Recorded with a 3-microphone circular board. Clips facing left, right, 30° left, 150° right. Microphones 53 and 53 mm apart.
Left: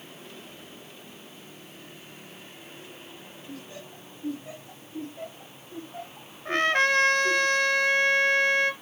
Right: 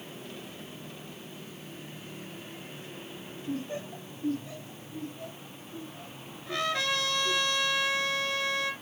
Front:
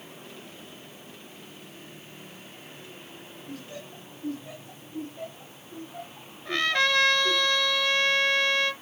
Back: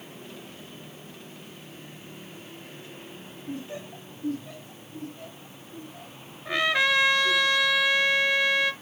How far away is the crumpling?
No crumpling in this recording.